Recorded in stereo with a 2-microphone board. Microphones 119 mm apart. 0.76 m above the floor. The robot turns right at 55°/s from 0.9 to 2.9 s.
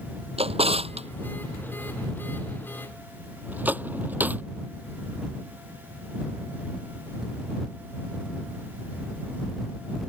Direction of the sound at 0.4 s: 55° right (ahead or behind).